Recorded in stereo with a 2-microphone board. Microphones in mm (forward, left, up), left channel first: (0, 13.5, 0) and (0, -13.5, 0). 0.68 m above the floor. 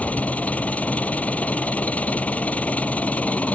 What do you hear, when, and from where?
0.0 s an engine running: 60° left (ahead or behind)